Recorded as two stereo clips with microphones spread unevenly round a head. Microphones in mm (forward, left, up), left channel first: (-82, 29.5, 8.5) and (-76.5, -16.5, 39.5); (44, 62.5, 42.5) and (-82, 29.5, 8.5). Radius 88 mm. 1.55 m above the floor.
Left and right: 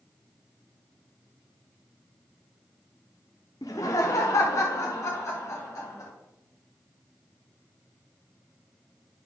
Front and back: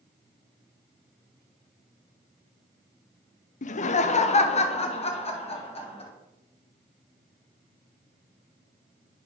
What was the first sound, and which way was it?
Laughter, 30° left.